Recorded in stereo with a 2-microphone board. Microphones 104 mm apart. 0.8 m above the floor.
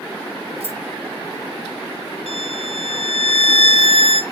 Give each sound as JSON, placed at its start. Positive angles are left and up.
{"t": 0.6, "sound": "keys jangling", "side_deg": -85, "distance_m": 3.5}
{"t": 2.3, "sound": "a violin", "side_deg": -70, "distance_m": 1.5}